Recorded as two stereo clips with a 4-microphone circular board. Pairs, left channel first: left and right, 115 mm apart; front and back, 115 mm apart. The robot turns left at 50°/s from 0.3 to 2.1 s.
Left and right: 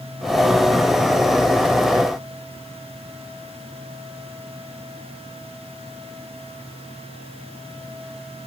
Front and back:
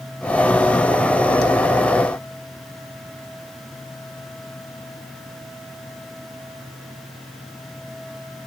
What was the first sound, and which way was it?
Only background noise.